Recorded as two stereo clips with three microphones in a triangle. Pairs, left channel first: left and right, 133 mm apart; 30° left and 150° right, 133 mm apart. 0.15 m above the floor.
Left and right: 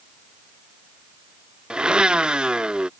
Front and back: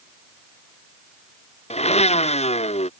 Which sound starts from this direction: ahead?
A blender, at 1.7 s.